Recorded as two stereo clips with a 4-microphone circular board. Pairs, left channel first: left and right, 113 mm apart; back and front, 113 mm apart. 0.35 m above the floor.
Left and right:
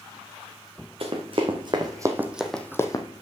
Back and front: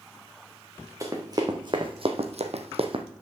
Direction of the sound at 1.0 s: 60° right.